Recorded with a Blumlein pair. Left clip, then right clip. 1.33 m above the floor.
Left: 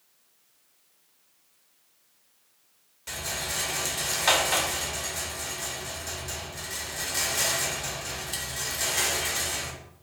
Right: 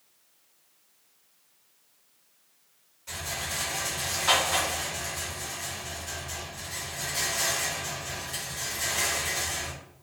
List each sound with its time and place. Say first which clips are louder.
3.1 s a rattle: left 1 dB; 30° left, 0.8 m